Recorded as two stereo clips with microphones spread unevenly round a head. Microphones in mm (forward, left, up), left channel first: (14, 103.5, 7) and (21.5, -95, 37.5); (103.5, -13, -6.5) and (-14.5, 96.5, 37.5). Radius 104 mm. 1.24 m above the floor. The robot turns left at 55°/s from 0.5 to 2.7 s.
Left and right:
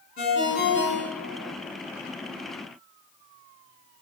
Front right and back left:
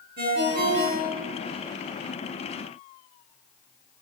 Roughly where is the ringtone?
Behind left.